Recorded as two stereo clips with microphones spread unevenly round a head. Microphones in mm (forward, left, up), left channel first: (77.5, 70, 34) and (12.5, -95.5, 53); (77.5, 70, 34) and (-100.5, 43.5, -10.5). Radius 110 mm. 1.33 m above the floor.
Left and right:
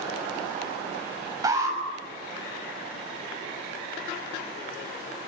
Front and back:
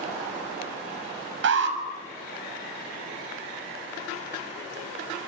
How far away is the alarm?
About 6.5 m.